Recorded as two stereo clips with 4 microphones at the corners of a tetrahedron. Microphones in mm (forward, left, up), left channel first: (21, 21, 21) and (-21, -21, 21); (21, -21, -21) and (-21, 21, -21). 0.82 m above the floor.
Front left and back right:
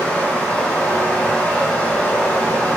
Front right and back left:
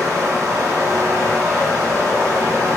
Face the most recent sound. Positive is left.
turn(degrees=115)